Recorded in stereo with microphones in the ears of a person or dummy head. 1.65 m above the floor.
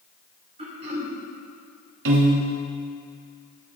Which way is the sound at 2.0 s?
70° right (ahead or behind).